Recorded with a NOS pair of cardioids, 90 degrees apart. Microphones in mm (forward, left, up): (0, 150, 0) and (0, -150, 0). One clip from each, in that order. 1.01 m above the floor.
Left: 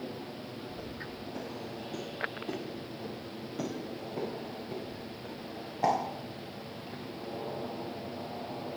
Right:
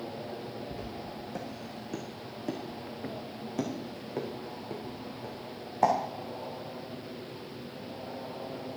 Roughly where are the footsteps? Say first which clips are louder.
Right 2 dB; ahead right.